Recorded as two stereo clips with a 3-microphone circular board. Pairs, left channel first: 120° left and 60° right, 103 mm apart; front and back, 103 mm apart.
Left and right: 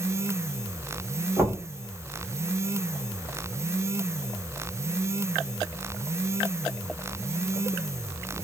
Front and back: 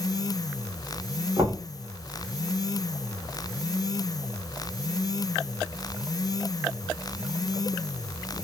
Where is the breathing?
No breathing in this recording.